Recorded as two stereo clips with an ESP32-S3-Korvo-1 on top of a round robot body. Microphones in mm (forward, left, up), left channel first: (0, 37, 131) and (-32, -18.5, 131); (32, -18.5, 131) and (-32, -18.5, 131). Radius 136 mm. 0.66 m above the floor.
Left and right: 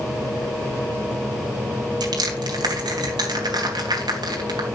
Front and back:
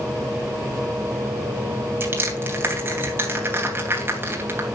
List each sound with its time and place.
2.0 s crushing: 125° right, 3 m